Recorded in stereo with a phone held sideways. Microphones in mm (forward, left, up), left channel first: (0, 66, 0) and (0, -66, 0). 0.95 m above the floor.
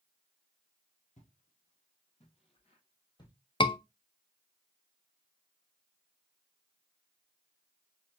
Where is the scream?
35° left (ahead or behind), 0.5 m.